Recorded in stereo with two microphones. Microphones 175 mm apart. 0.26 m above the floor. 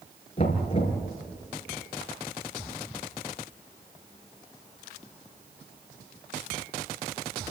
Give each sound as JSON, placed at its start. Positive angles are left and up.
{"t": 0.4, "sound": "knocking", "side_deg": 35, "distance_m": 4.0}